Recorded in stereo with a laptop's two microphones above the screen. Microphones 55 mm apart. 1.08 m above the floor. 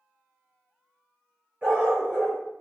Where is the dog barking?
25° right (ahead or behind), 1.2 m.